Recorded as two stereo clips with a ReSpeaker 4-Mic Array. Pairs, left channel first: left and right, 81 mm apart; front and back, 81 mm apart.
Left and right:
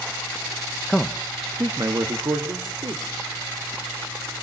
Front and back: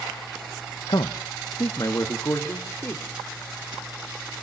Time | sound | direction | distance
0.9 | a man speaking | 10° left | 0.8 m